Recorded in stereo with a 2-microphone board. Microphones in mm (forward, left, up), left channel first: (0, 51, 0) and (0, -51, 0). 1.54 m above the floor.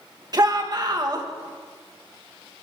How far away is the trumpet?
I don't hear a trumpet.